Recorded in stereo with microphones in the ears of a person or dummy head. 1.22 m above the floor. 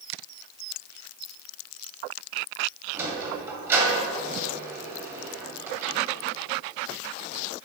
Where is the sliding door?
15° right (ahead or behind), 2 m.